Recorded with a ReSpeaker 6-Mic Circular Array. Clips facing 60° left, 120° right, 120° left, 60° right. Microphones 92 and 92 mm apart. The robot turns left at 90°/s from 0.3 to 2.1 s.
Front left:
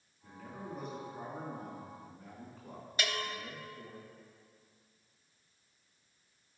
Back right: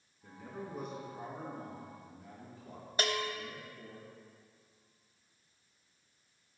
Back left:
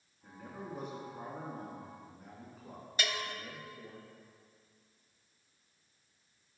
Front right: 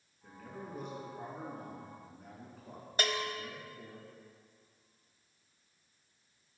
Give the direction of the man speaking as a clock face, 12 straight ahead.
5 o'clock.